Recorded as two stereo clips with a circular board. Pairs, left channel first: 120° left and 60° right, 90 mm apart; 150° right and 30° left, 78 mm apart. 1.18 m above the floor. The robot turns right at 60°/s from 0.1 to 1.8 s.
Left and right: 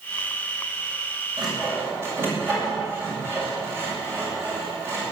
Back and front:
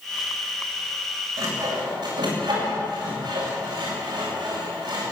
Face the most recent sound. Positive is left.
turn(degrees=0)